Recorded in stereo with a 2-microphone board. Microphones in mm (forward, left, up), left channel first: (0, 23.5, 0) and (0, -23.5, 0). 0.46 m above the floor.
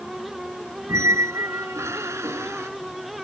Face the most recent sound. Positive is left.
turn(degrees=-75)  # may be behind; listen again after turning